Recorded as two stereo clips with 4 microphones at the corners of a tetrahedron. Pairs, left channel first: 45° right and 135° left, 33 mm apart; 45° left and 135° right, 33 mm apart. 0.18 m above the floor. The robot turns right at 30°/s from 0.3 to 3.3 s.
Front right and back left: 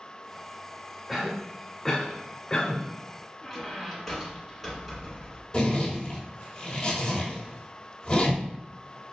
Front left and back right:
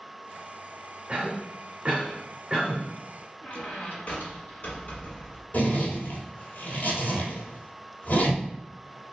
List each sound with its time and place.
1.1 s a cough: 135° right, 1.1 m; by 2.8 s 80° right, 1.1 m
3.4 s a squeak: 50° left, 1.4 m
5.5 s a zipper: 20° left, 1.2 m